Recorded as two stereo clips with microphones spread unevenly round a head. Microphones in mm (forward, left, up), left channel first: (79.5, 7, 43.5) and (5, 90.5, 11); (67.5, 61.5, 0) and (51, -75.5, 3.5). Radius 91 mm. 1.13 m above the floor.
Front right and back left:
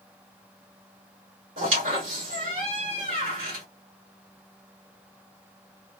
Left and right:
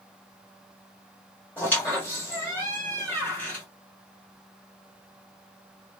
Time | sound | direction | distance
1.6 | a squeak | 160° left | 1.1 m